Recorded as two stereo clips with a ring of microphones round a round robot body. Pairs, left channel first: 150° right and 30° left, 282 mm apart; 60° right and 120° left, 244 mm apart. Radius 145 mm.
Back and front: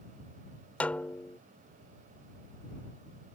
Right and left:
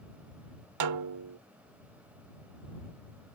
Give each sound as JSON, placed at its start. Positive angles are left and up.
{"t": 0.8, "sound": "a snare drum", "azimuth_deg": 125}